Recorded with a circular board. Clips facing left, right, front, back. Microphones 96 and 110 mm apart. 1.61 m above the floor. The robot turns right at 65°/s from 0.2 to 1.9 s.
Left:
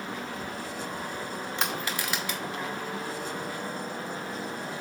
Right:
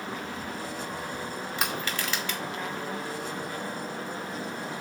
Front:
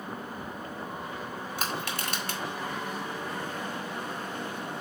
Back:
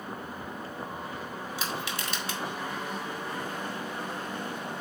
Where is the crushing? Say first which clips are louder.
Even, front 2 dB; 5° right, 1.8 m; by 2.4 s 15° left, 1.8 m.